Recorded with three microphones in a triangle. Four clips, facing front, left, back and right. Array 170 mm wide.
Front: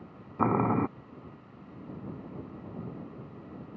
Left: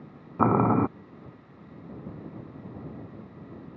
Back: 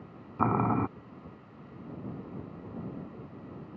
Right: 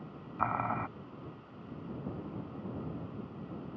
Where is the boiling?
70° left.